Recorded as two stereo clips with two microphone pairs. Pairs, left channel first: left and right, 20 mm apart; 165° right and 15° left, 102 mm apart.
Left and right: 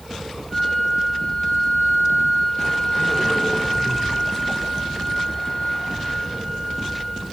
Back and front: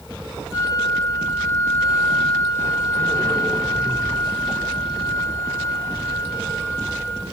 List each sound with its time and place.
0.5 s a flute: 90° left, 4 m